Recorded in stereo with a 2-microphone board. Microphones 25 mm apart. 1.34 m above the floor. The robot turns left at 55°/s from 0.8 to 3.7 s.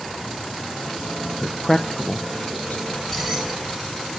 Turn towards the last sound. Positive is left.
turn(degrees=-5)